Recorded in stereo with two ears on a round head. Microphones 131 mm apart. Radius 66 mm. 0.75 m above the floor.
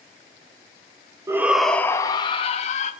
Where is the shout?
20° right (ahead or behind), 0.7 m; by 2.9 s 50° left (ahead or behind), 1.1 m.